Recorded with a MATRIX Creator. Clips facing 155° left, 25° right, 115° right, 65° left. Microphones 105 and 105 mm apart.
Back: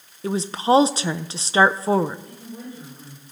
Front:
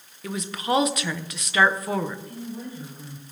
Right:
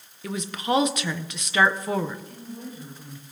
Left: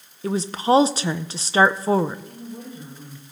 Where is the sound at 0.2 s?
110° left, 0.5 m.